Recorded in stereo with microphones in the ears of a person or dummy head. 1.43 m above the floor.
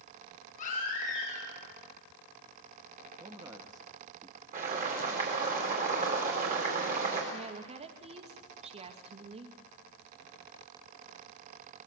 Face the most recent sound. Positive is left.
turn(degrees=-30)  # may be behind; listen again after turning